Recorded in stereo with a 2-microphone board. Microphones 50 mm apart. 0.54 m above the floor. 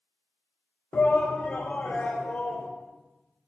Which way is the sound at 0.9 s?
35° left (ahead or behind).